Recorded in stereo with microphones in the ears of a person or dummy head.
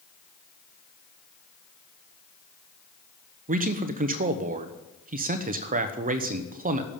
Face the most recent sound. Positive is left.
turn(degrees=-35)  # may be behind; listen again after turning